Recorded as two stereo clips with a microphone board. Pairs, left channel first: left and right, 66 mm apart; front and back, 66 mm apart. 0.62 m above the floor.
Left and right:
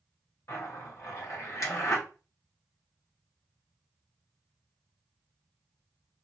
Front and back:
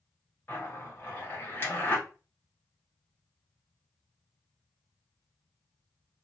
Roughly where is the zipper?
Ahead left.